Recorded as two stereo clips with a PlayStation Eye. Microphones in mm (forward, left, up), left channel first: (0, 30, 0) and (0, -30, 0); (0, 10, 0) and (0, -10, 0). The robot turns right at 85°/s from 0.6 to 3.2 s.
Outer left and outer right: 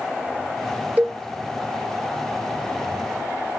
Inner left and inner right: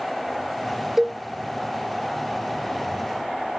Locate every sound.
1.0 s a cowbell: 30° right (ahead or behind), 0.6 m; by 1.1 s 15° right (ahead or behind), 0.6 m